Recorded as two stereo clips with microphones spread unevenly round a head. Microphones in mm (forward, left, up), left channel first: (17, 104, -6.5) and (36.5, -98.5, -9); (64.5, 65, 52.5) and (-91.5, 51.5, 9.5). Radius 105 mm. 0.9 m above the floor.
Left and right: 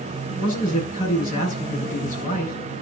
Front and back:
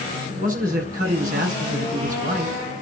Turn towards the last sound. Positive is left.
turn(degrees=150)